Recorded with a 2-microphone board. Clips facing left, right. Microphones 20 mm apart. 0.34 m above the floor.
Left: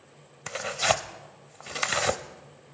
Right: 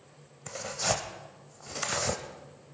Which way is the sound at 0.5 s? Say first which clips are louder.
Left 5 dB; 50° left (ahead or behind).